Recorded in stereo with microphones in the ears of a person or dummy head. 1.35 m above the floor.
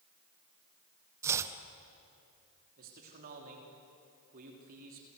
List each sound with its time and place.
1.2 s chopping: 20° right (ahead or behind), 0.9 m
2.8 s a man speaking: 45° right (ahead or behind), 3 m